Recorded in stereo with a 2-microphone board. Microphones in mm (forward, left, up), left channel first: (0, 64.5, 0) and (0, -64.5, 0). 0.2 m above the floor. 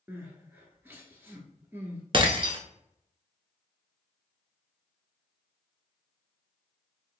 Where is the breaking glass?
40° right (ahead or behind), 0.7 m.